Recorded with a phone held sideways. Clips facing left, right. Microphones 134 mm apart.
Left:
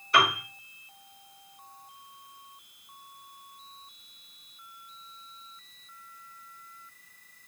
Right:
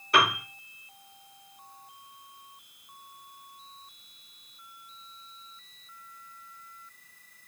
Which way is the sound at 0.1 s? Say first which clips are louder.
Even; 65° right (ahead or behind).